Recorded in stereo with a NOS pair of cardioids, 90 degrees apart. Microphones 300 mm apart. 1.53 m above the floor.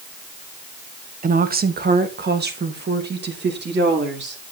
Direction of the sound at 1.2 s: 25° right.